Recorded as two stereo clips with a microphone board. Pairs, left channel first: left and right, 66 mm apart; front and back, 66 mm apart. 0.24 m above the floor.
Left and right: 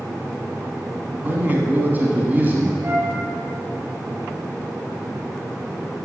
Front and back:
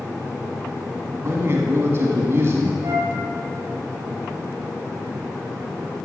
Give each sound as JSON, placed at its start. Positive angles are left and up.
{"t": 1.2, "sound": "a man speaking", "azimuth_deg": -145, "distance_m": 1.6}
{"t": 2.8, "sound": "a flute", "azimuth_deg": -135, "distance_m": 3.5}